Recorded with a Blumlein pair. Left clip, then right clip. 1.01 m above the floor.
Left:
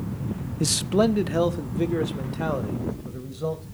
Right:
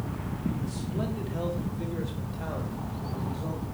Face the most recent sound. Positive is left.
turn(degrees=25)